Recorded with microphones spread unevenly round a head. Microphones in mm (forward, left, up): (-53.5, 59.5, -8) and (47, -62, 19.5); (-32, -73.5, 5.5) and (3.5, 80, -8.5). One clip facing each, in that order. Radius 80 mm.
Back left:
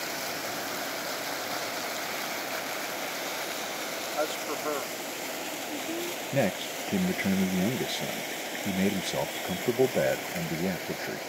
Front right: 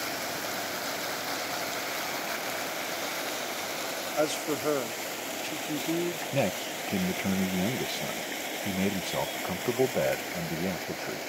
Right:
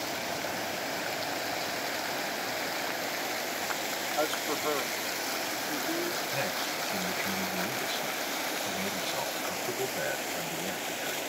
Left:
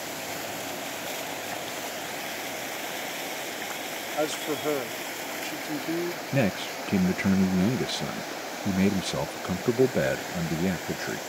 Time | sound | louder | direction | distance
4.2 | a man speaking | front right 4 dB, left 4 dB | 10° left | ?
6.3 | a man speaking | back left 4 dB, left 7 dB | 55° left | ?